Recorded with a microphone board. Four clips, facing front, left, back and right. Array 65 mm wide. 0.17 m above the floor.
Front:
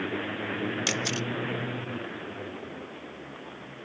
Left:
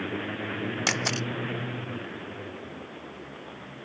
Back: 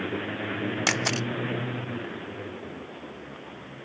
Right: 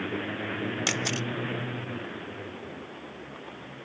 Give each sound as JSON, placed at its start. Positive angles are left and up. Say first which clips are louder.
{"t": 0.9, "sound": "a camera shutter", "louder": "left 1 dB, back 3 dB", "azimuth_deg": 155}